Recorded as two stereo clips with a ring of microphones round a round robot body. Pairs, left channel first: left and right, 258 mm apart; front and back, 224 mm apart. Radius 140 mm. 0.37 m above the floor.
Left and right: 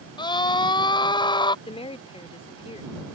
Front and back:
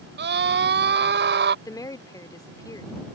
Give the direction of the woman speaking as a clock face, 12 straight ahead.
10 o'clock.